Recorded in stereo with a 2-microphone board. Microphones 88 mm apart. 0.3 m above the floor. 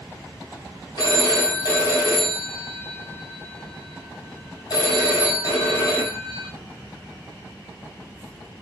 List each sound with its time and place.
1.0 s a phone ringing: 55° left (ahead or behind), 1.2 m